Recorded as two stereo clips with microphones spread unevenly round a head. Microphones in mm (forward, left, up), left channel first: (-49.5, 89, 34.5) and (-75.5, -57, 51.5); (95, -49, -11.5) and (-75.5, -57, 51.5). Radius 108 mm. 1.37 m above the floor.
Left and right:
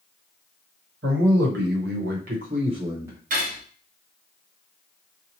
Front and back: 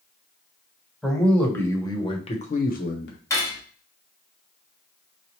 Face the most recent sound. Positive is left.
turn(degrees=-85)